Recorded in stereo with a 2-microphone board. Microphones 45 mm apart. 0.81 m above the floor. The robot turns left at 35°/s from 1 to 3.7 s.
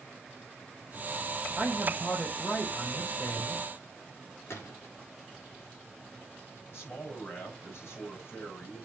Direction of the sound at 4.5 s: 75° left (ahead or behind).